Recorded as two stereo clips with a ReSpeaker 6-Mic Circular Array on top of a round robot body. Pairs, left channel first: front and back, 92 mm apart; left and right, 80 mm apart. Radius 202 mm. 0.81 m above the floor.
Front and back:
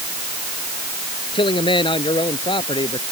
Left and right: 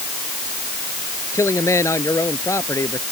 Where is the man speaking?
35° left.